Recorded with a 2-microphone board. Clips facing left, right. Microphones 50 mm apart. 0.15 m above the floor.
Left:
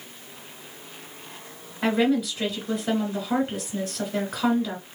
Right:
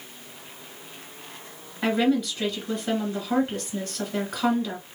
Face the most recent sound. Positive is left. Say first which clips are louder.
# even
turn(degrees=5)  # may be behind; listen again after turning